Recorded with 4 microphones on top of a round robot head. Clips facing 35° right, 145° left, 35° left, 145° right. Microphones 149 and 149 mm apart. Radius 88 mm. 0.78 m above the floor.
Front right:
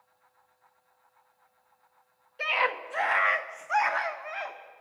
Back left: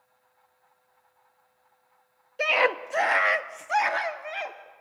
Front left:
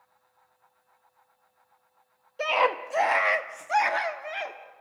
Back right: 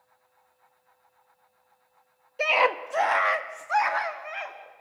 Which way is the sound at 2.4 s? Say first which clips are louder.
Back left 6 dB, back right 1 dB; 140° left.